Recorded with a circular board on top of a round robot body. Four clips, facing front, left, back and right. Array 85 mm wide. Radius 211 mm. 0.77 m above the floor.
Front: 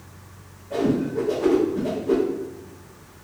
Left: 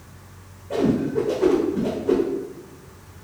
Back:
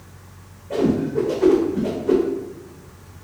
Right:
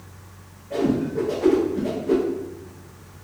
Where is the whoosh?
135° left, 0.9 m.